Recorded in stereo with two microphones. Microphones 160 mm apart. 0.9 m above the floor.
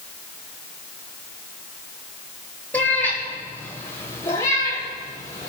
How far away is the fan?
I don't hear a fan.